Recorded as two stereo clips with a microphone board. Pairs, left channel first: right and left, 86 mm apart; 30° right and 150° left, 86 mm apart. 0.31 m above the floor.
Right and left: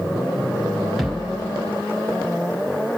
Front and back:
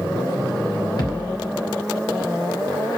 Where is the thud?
Straight ahead, 2 m.